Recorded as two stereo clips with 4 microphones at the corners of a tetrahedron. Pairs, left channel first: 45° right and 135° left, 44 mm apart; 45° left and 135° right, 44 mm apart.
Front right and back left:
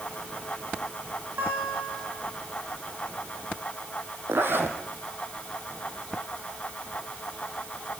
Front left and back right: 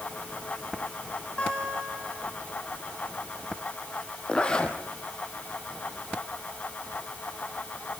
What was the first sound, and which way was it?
A guitar, 105° left.